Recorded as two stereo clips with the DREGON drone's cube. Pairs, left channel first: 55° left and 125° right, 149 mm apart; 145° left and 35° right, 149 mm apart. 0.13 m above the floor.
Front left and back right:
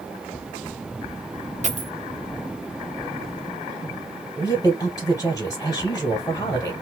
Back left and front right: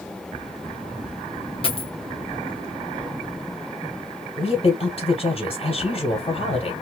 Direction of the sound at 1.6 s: 165° right.